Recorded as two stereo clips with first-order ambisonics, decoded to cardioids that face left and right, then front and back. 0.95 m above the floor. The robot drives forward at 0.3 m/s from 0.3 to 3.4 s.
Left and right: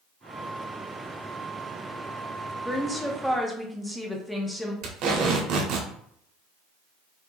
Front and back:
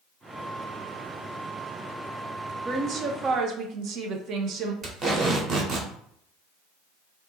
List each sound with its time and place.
2.6 s a woman speaking: 175° left, 0.5 m; by 4.7 s straight behind, 0.7 m
4.8 s tape being pulled: 120° right, 1.1 m